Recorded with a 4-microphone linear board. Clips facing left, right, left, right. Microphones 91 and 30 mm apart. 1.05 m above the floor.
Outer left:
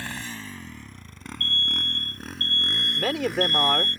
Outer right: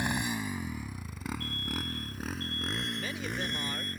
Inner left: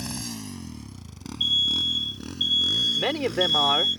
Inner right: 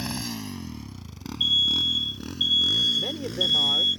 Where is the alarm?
5° right (ahead or behind).